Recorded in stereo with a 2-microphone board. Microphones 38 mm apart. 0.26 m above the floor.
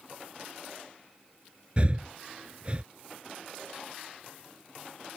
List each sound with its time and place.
1.8 s breathing: 35° right (ahead or behind)